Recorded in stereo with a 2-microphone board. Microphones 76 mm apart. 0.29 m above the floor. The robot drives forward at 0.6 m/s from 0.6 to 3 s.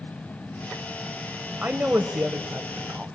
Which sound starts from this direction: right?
A woman speaking, at 1.6 s.